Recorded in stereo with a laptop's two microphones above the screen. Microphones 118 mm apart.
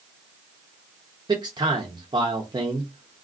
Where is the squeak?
I don't hear a squeak.